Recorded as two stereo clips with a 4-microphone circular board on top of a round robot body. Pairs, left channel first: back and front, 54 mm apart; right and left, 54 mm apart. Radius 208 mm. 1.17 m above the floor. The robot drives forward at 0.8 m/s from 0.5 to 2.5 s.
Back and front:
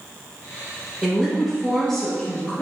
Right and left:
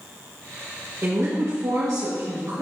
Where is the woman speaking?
70° left, 1.6 m; by 2.6 s 115° left, 1.6 m.